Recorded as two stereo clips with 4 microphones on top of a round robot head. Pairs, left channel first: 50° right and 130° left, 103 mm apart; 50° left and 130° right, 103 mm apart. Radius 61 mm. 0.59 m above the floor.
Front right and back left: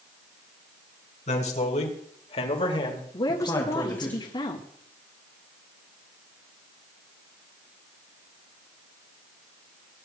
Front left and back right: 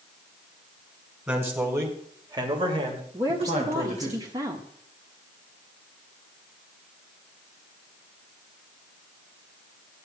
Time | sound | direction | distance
1.3 | a man speaking | 55° right | 3.5 m
3.1 | a woman speaking | 85° right | 1.8 m